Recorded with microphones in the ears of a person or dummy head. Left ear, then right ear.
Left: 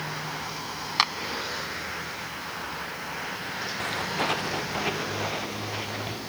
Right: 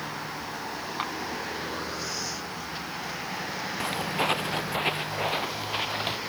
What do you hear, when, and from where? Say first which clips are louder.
1.0 s a clap: left 10 dB; 65° left (ahead or behind)
3.8 s footsteps: right 1 dB; 10° right (ahead or behind); by 6.2 s 40° right (ahead or behind)